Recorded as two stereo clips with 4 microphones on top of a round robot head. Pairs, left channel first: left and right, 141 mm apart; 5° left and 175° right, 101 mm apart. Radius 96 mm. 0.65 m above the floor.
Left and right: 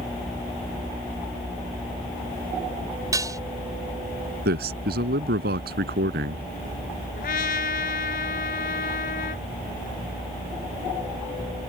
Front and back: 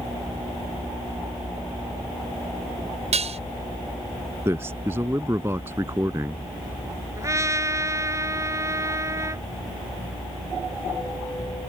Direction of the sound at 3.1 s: 160° right.